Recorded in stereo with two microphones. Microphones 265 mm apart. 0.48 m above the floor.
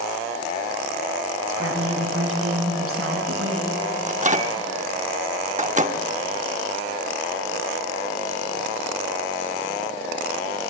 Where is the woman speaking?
50° right (ahead or behind), 5 m; by 3.8 s 55° right (ahead or behind), 6 m.